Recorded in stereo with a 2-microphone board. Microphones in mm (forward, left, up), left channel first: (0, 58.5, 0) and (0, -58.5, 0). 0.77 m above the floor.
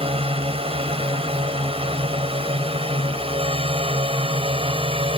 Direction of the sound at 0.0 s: 55° right (ahead or behind).